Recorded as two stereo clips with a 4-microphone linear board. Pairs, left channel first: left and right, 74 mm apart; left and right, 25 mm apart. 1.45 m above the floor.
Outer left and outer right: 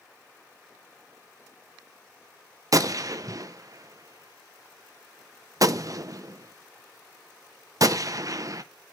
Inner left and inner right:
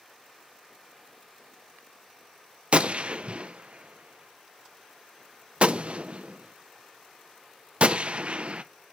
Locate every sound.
2.7 s a gunshot: 50° right (ahead or behind), 0.6 m